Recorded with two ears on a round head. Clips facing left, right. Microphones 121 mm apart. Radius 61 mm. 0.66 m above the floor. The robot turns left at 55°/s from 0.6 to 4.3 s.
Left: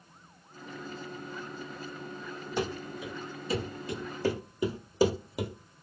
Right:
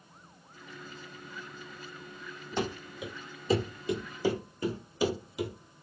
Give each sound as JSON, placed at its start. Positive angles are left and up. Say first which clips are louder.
{"t": 2.6, "sound": "running footsteps", "louder": "even", "side_deg": 5, "distance_m": 1.2}